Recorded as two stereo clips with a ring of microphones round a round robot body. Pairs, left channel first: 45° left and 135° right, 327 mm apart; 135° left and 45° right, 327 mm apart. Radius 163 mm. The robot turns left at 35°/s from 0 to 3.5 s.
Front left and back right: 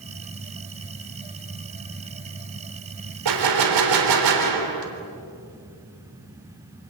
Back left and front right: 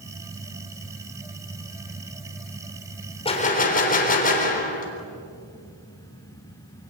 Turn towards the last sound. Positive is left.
turn(degrees=-160)